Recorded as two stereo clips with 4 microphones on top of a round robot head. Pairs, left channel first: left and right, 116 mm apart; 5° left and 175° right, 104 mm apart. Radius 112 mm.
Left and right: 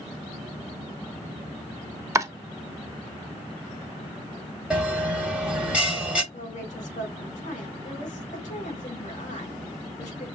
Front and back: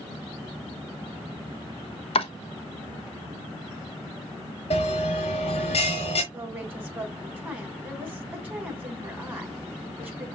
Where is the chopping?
25° right, 0.9 m.